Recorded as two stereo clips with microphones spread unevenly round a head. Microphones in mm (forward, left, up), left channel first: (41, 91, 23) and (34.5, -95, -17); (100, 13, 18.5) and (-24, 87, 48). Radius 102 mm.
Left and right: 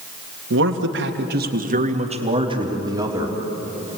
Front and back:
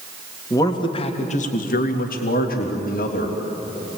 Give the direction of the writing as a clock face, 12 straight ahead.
No writing in this recording.